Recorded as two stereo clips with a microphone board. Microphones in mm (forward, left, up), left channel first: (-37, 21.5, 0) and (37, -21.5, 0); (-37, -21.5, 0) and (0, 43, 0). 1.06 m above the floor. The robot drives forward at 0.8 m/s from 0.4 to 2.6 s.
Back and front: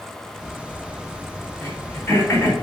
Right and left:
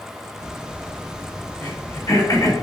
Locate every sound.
1.6 s throat clearing: 150° right, 2.5 m; by 2.6 s 155° right, 3.5 m